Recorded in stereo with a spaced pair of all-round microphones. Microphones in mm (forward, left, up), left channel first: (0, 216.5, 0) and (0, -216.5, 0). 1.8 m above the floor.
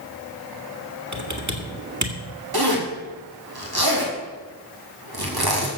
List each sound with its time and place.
1.1 s typing on a keyboard: 40° right (ahead or behind), 1.9 m
2.5 s a zipper: 55° right (ahead or behind), 3 m